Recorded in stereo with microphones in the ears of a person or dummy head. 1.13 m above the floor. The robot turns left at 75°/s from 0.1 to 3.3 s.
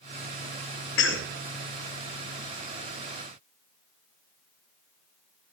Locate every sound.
1.0 s a cough: 60° left (ahead or behind), 1.4 m